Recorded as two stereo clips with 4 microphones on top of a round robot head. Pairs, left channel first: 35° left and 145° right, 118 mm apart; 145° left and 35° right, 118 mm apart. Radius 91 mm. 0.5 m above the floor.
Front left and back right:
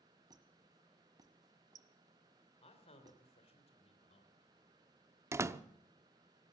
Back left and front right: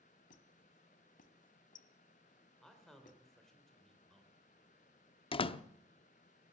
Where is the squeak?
155° left, 1.2 m.